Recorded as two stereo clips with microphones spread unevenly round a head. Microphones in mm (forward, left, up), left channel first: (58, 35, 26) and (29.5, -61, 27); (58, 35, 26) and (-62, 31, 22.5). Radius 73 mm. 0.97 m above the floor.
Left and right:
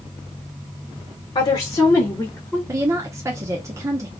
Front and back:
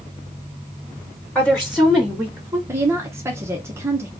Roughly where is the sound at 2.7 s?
Behind right.